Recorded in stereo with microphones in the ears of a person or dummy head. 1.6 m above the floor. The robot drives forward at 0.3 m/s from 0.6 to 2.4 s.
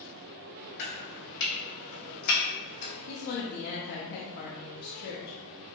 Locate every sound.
0.8 s chopping: 65° left (ahead or behind), 1.3 m; by 2.9 s 45° left (ahead or behind), 1.5 m
3.1 s a woman speaking: 45° left (ahead or behind), 0.6 m